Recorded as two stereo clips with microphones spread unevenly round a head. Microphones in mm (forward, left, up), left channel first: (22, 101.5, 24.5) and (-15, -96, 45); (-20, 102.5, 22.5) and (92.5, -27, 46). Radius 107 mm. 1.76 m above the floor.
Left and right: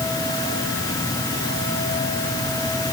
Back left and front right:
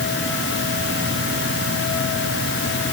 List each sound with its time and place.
Only background noise.